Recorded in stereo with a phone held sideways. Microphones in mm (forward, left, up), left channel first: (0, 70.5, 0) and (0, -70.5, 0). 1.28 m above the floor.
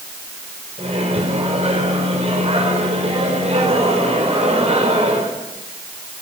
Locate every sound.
0.8 s a microwave: 50° right (ahead or behind), 5 m